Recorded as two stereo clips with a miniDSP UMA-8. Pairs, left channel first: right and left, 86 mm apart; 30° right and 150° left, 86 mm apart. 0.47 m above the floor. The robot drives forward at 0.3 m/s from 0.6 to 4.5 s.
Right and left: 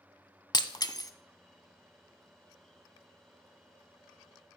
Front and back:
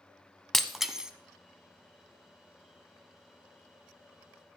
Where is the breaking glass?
115° right, 0.6 m; by 1.1 s 130° right, 0.6 m.